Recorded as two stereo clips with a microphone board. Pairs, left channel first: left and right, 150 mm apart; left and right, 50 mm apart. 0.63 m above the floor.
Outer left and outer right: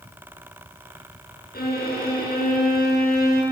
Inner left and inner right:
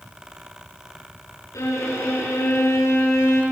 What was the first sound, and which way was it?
A violin, 85° left.